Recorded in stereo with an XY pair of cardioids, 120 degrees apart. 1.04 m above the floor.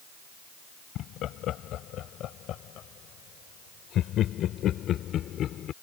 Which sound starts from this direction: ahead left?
Laughter, at 0.9 s.